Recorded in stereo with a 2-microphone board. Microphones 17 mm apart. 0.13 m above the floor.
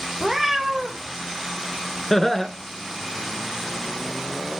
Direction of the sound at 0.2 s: 10° right (ahead or behind).